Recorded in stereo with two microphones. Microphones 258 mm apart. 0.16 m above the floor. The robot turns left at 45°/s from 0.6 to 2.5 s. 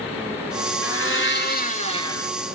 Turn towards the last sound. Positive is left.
turn(degrees=0)